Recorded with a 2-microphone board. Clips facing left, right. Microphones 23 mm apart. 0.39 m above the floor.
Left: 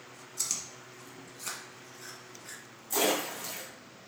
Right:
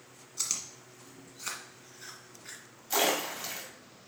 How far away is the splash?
About 2.5 m.